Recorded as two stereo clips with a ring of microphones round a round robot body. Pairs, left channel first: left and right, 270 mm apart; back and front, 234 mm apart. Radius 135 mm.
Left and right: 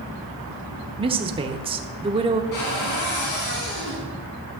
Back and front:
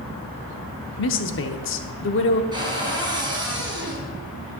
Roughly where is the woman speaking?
Behind.